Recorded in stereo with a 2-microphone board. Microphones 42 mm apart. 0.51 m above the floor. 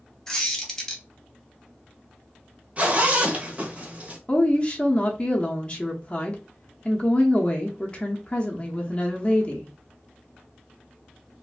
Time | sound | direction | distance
0.3 | a squeak | 10° left (ahead or behind) | 0.9 m
2.8 | a zipper | 35° right (ahead or behind) | 0.8 m
4.3 | a woman speaking | 30° left (ahead or behind) | 0.7 m